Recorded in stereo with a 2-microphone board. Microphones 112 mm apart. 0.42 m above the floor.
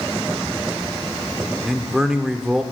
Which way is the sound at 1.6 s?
5° right (ahead or behind).